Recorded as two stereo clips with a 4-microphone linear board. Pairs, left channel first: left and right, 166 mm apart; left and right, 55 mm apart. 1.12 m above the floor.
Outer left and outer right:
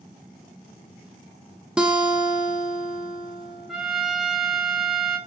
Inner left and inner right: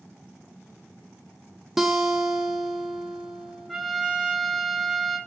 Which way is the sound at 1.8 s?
5° right (ahead or behind).